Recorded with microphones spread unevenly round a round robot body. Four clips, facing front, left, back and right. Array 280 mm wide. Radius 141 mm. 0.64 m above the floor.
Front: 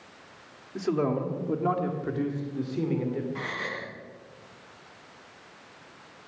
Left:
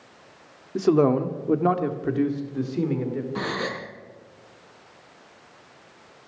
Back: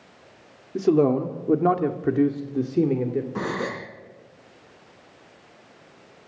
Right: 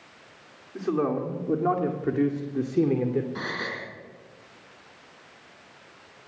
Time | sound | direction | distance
0.8 | a man speaking | 140° left | 2 m
3.4 | a gasp | 165° left | 2.0 m